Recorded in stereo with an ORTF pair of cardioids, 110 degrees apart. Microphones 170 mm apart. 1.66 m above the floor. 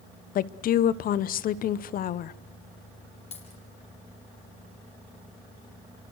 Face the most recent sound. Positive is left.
turn(degrees=40)